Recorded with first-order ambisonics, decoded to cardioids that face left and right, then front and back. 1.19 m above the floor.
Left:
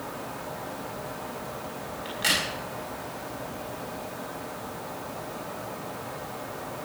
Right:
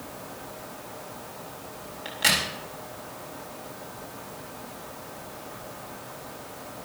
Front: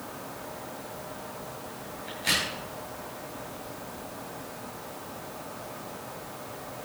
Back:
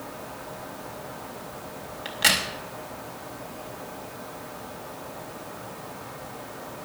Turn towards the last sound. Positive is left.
turn(degrees=-170)